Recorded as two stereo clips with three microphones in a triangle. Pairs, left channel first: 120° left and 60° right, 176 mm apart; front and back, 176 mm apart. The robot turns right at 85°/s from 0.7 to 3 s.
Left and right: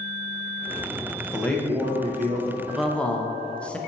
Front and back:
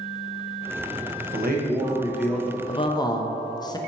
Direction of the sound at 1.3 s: 170° right.